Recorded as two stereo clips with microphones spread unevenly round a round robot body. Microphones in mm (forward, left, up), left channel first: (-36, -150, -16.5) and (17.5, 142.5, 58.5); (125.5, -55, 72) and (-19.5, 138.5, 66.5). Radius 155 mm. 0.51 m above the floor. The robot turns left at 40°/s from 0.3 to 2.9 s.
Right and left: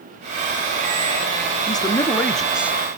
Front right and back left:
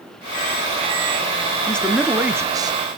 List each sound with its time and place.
1.7 s a man speaking: 135° right, 0.8 m; by 3.0 s 175° left, 0.8 m